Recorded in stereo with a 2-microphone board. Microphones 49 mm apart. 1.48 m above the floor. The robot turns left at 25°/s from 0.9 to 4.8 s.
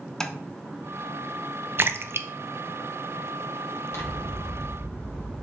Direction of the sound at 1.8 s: 50° right (ahead or behind).